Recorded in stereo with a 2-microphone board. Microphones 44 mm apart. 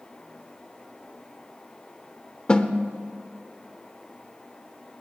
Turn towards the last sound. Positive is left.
turn(degrees=25)  # may be behind; listen again after turning